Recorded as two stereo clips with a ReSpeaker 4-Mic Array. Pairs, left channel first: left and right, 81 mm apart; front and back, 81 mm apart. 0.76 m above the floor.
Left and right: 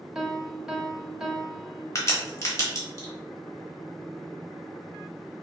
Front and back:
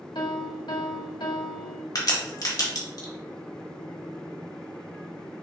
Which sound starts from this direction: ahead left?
A crack, at 1.9 s.